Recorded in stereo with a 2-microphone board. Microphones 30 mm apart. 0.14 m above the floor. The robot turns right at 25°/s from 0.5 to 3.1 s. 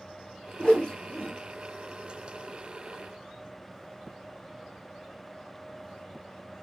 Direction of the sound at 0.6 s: 25° left (ahead or behind).